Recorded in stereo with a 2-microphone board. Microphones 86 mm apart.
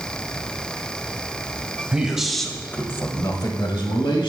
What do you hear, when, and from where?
1.9 s a man speaking: 10° right (ahead or behind), 2.5 m; by 4.3 s 80° left, 2.5 m